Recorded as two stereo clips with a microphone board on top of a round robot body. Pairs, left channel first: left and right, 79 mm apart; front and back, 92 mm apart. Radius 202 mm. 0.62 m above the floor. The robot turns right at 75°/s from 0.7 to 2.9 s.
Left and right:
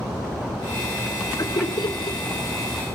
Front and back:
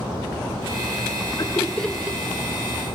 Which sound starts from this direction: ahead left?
Laughter, at 1.4 s.